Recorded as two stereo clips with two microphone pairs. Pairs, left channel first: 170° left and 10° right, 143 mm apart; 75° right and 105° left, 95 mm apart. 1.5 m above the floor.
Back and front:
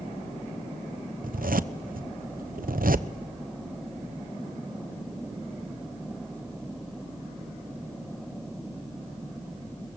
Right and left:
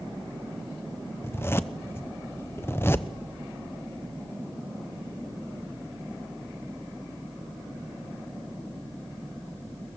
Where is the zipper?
10° right, 0.9 m.